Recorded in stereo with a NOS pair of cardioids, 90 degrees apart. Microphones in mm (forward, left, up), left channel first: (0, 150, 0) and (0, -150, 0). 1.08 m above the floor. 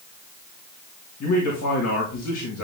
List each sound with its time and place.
1.2 s a man speaking: 50° left, 2 m